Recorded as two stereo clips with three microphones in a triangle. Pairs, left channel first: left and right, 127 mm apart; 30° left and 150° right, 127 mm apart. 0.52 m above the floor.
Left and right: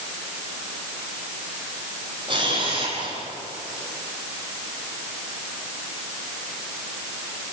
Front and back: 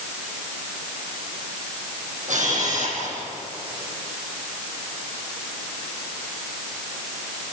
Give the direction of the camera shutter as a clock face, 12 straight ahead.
5 o'clock.